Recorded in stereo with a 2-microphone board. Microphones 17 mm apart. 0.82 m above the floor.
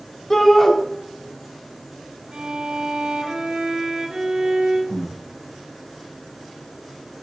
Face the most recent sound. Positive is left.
turn(degrees=40)  # may be behind; listen again after turning